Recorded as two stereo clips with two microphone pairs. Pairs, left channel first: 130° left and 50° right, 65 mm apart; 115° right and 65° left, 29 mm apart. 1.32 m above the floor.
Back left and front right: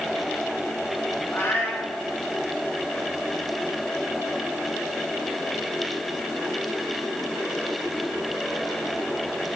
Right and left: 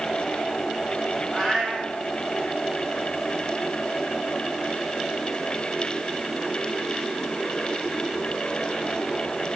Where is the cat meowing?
Straight behind, 4.5 m.